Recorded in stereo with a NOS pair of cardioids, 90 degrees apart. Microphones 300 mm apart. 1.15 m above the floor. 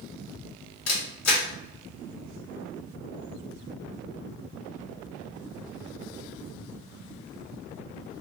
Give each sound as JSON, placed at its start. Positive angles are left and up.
{"t": 0.9, "sound": "a camera shutter", "azimuth_deg": 50, "distance_m": 1.9}